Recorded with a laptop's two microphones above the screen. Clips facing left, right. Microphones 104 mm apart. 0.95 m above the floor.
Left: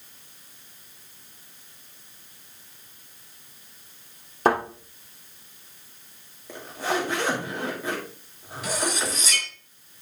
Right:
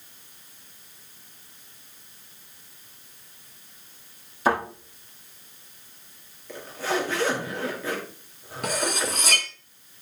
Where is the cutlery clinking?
60° right (ahead or behind), 0.8 m.